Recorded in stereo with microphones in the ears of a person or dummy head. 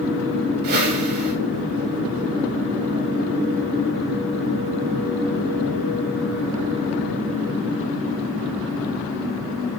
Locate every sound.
0.6 s a whoosh: 45° right (ahead or behind), 3.5 m